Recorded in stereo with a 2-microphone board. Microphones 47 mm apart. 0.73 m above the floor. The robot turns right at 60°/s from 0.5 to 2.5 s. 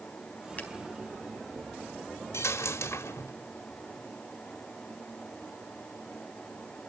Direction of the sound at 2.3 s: 80° left.